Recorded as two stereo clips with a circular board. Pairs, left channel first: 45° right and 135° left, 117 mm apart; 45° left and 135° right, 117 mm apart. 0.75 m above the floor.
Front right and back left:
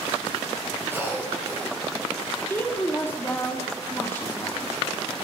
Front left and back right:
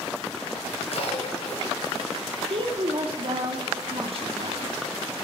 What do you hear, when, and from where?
0.9 s a cough: 65° left, 3.5 m
2.5 s a woman speaking: 115° right, 1.7 m